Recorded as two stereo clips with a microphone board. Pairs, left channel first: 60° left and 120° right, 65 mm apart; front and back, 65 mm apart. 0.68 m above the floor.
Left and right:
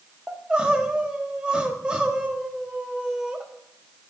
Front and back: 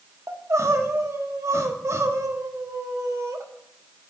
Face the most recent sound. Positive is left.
turn(degrees=170)